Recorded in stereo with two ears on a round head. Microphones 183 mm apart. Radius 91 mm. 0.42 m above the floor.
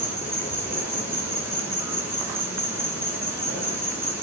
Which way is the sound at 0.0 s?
15° right (ahead or behind).